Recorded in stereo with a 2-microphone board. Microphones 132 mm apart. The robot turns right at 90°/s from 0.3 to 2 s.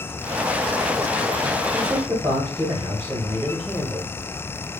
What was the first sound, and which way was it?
A man speaking, 10° right (ahead or behind).